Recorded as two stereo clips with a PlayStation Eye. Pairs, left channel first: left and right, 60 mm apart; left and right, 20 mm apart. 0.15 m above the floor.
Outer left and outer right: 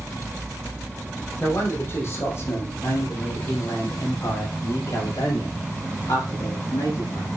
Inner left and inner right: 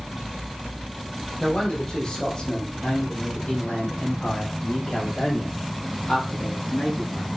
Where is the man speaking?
40° left (ahead or behind), 5 m; by 7.3 s 75° left (ahead or behind), 7 m.